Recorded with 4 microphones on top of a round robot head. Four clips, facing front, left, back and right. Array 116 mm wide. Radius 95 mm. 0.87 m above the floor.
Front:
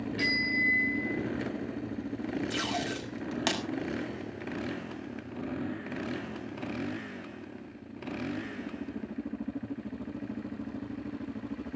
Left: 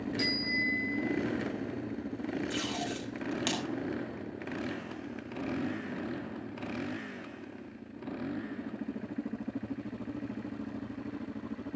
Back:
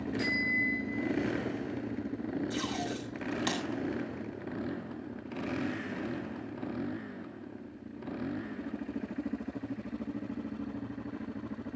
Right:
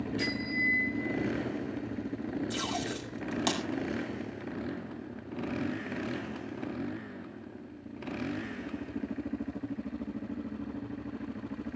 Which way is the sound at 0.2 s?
20° left.